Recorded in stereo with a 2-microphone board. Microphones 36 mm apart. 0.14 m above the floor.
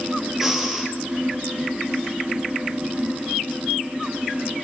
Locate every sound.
0.4 s breathing: 10° right (ahead or behind), 3 m